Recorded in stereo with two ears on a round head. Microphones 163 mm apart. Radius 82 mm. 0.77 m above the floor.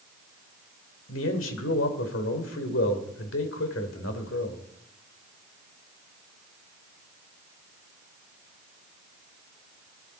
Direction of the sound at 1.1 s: 80° left.